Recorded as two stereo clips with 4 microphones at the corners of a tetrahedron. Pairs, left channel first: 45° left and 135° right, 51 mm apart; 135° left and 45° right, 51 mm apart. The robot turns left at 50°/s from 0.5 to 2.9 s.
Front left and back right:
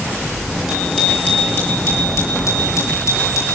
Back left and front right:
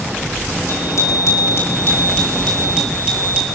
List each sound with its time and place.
0.7 s a bicycle bell: 135° left, 8.5 m; by 3.6 s 25° left, 8.5 m